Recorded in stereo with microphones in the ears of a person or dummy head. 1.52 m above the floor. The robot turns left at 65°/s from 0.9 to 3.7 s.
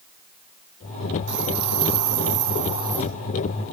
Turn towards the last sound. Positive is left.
turn(degrees=155)